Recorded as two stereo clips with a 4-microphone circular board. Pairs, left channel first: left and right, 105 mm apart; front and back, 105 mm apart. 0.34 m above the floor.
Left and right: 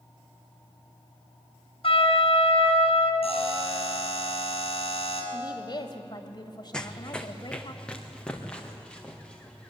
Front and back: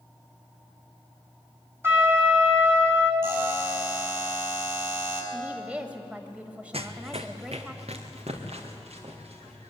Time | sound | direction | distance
1.8 | a trumpet | 115° left | 2.5 m
3.2 | a buzzer | 115° left | 5 m
5.3 | a woman speaking | 110° left | 2 m
6.7 | running footsteps | 170° left | 1.0 m